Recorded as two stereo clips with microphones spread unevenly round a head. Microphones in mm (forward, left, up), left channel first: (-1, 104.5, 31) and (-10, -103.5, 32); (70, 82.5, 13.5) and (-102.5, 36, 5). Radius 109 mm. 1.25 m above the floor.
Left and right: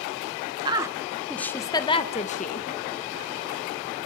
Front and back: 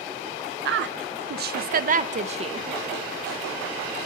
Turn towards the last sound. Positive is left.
turn(degrees=135)